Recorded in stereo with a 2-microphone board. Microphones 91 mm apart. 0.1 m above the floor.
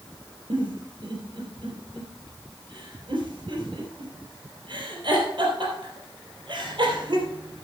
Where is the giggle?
60° right (ahead or behind), 3.5 m.